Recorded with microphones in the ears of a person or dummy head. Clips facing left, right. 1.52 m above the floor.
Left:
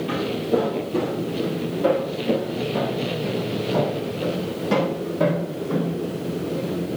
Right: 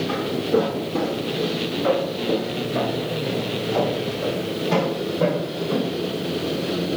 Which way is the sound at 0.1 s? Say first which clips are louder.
Even; 55° left (ahead or behind).